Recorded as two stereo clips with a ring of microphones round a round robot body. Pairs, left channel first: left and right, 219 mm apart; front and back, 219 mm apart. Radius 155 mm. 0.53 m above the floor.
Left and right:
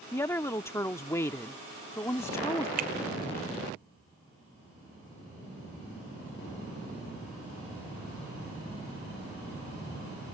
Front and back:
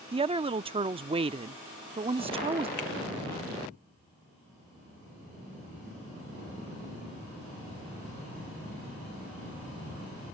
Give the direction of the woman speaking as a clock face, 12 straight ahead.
7 o'clock.